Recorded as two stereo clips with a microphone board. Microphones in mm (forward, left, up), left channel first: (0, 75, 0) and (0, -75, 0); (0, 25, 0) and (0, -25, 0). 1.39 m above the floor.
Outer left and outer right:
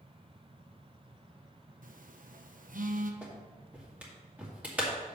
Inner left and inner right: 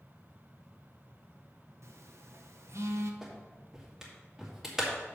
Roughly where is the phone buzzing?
Right.